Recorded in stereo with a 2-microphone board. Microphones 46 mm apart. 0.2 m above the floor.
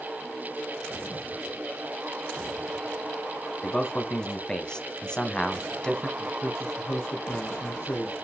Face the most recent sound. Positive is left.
turn(degrees=55)  # may be behind; listen again after turning